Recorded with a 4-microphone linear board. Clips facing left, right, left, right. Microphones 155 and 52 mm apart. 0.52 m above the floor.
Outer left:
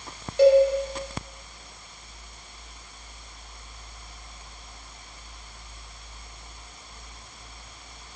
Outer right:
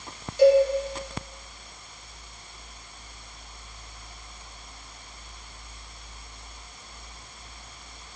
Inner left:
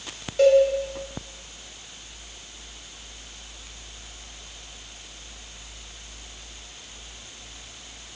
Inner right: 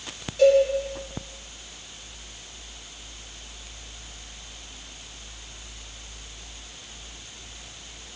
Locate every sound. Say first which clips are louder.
0.4 s a cowbell: outer left 1 dB, inner left 1 dB; 60° left (ahead or behind), 0.5 m